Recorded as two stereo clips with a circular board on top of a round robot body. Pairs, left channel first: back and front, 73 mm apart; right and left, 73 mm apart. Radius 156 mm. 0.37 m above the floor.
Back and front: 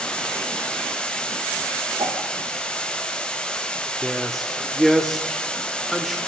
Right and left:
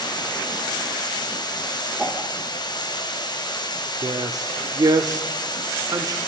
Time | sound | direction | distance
0.0 | running water | 105° right | 3 m
2.0 | a whoosh | 5° left | 5 m
4.0 | a man speaking | 90° left | 1.9 m